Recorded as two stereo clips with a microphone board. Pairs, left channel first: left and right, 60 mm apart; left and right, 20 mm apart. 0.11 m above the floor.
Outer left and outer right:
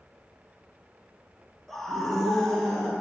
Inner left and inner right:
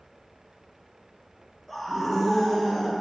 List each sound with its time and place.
1.7 s a scream: 5° left (ahead or behind), 1.2 m